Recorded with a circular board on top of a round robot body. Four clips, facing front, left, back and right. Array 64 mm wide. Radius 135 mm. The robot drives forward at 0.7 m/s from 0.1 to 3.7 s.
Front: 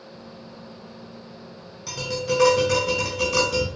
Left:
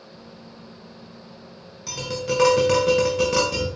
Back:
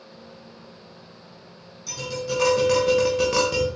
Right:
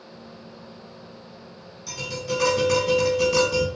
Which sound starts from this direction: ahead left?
Tapping, at 1.9 s.